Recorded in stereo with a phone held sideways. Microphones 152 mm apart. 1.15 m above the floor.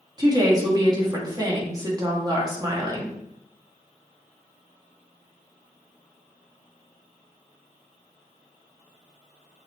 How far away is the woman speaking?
About 1.4 m.